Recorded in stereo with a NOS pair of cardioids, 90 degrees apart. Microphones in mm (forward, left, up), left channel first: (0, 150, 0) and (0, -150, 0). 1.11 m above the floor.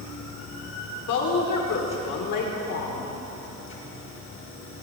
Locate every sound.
0.0 s a machine running: 45° left, 3.5 m
1.1 s a woman speaking: 70° left, 3.5 m